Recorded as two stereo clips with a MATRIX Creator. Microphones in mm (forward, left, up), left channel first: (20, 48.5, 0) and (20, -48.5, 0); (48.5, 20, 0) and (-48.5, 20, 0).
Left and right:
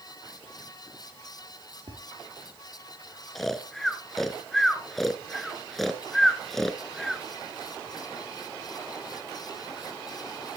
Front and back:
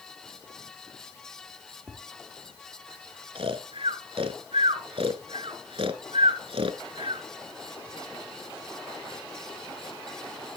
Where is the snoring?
175° left, 0.9 m.